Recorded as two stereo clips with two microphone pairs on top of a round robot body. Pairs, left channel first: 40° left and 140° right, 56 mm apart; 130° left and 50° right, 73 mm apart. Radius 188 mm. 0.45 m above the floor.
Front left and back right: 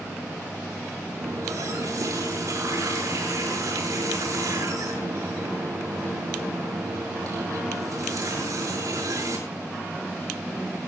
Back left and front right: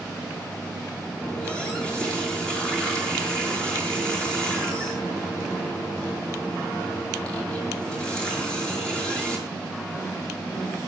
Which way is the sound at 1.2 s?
150° right.